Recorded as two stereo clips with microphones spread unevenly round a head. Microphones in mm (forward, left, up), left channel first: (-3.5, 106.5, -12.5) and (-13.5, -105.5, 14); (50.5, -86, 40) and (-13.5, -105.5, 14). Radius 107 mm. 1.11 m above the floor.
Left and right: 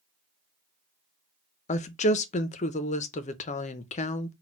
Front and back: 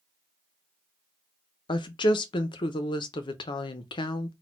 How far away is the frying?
I don't hear frying.